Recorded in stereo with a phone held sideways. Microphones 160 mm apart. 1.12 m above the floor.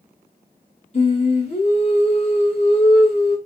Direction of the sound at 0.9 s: 40° left (ahead or behind).